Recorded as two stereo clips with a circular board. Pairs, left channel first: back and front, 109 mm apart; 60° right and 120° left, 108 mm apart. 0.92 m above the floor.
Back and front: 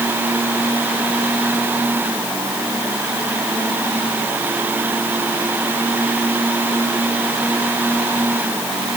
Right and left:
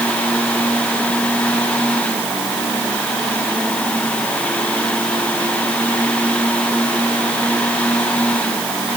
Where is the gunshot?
I don't hear a gunshot.